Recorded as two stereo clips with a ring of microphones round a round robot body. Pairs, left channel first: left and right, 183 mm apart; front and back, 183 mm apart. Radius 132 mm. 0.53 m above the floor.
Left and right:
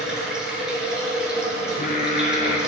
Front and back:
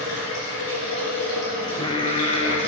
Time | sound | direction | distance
0.0 | running water | 5° right | 3 m
1.6 | singing | 55° left | 1.0 m